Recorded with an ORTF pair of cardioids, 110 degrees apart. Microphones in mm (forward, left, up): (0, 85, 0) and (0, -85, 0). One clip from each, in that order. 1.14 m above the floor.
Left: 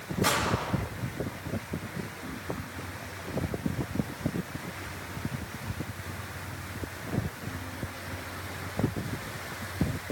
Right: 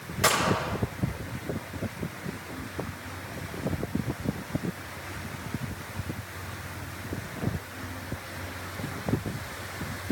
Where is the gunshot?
50° right, 6.5 m.